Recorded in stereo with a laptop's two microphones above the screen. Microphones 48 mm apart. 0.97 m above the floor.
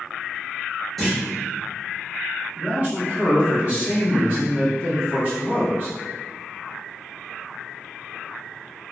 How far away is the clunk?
About 0.7 m.